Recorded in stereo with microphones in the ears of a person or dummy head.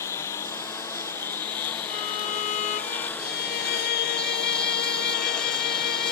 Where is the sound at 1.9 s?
45° left (ahead or behind).